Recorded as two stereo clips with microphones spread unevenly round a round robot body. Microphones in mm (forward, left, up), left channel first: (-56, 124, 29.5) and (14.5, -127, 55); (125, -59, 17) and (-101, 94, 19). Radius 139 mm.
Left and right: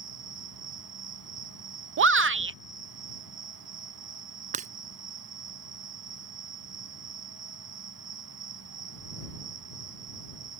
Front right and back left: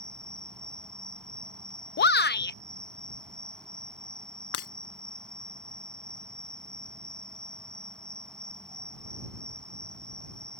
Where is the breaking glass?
10° right.